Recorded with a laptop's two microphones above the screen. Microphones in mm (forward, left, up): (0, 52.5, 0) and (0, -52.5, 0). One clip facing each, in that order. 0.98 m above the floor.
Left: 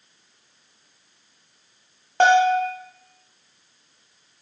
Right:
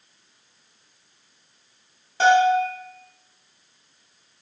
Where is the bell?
60° left (ahead or behind), 0.8 m.